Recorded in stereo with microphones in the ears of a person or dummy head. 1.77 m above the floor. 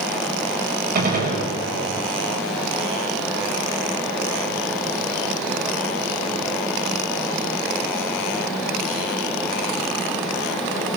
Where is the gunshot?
50° right (ahead or behind), 6.5 m.